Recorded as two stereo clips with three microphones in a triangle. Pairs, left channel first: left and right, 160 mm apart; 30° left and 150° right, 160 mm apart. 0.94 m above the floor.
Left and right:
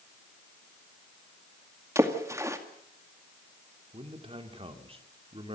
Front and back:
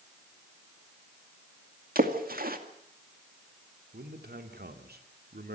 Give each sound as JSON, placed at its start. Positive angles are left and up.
{"t": 1.9, "sound": "a splash", "azimuth_deg": -160, "distance_m": 2.0}
{"t": 3.9, "sound": "a man speaking", "azimuth_deg": -145, "distance_m": 2.5}